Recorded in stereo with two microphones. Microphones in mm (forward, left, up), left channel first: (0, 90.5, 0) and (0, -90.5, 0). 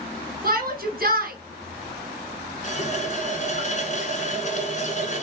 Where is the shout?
55° right (ahead or behind), 2 m.